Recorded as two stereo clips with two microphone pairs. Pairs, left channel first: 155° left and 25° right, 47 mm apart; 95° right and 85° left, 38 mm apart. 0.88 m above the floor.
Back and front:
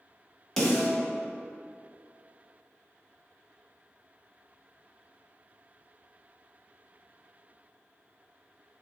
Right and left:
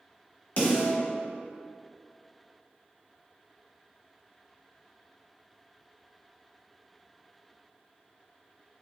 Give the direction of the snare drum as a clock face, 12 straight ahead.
4 o'clock.